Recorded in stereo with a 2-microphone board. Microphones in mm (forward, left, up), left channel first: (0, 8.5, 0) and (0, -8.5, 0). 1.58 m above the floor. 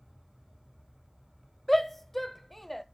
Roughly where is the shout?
Centre.